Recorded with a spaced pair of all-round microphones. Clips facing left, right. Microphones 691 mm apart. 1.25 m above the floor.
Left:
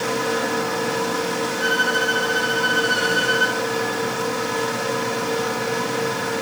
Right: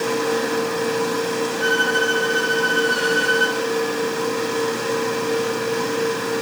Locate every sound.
0.0 s a fan: 20° left (ahead or behind), 2 m
1.6 s a violin: 65° left (ahead or behind), 5 m